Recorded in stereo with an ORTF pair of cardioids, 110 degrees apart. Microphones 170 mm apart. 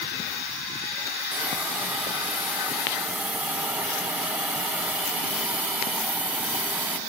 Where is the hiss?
10° right, 1.1 m.